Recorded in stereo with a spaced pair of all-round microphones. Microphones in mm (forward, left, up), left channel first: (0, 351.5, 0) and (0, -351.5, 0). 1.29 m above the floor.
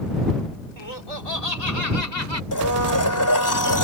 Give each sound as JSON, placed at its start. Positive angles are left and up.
{"t": 0.8, "sound": "laughter", "side_deg": 50}
{"t": 2.5, "sound": "a blender", "side_deg": 25}